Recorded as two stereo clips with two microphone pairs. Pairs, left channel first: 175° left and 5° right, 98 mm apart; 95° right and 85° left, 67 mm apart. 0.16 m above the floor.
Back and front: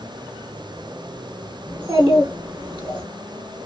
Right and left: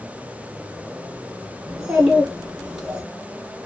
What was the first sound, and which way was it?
A child speaking, 5° left.